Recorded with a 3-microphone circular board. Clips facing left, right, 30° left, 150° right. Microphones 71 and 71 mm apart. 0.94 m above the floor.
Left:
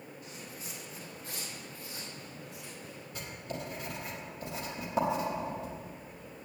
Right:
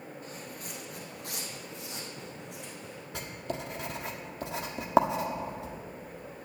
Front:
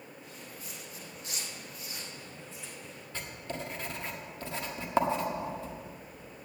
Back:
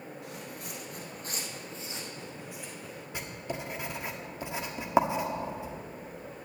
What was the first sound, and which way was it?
Footsteps, 140° right.